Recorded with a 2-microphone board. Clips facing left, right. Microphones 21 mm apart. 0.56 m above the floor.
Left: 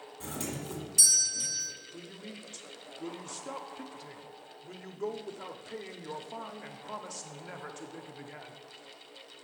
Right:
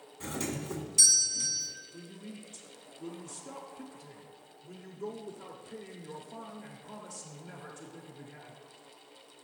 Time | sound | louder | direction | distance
0.2 | a doorbell | right 2 dB | 15° right (ahead or behind) | 1.7 m
1.9 | a woman speaking | left 1 dB | 30° left (ahead or behind) | 0.8 m